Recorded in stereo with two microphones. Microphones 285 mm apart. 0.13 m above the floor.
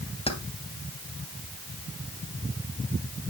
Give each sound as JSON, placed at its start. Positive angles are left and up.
{"t": 0.3, "sound": "keys jangling", "side_deg": 20, "distance_m": 2.0}